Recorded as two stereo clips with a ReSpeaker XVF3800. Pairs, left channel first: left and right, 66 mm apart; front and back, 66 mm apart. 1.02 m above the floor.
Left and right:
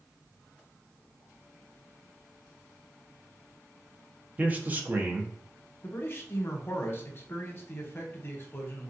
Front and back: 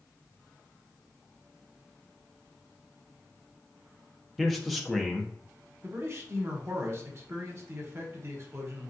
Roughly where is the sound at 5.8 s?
Behind left.